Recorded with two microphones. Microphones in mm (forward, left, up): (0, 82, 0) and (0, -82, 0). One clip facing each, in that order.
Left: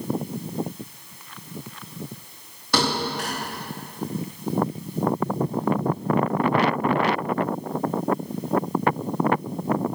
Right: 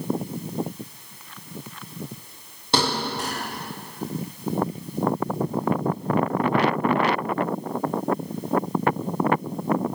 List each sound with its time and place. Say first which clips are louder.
2.7 s a thud: even; 25° right (ahead or behind), 6.5 m